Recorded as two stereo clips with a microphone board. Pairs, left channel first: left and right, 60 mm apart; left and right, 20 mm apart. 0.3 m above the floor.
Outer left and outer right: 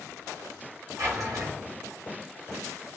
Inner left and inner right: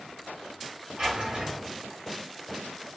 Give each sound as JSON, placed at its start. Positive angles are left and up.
{"t": 1.0, "sound": "a drawer", "side_deg": -65, "distance_m": 1.3}